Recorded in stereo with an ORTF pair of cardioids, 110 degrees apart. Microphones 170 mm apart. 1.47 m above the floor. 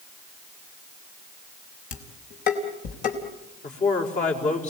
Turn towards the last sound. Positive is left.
turn(degrees=45)